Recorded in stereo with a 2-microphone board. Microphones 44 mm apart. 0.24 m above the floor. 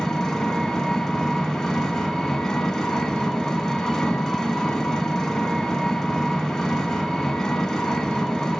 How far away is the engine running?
About 0.8 m.